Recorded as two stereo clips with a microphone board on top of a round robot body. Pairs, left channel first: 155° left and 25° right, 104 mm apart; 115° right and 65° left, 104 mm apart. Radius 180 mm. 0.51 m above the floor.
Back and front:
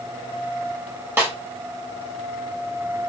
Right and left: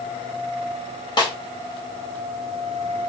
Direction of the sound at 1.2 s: 85° right.